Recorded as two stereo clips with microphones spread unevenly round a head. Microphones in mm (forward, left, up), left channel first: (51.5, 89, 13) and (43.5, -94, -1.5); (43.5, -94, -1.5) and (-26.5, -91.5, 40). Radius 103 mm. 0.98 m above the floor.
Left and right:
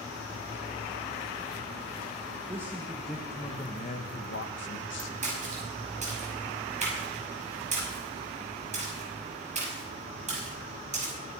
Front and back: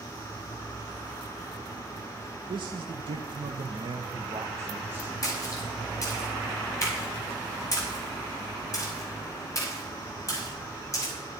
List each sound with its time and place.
2.5 s a man speaking: 165° right, 1.4 m; by 5.4 s 85° left, 1.7 m
5.2 s a splash: 40° right, 5.5 m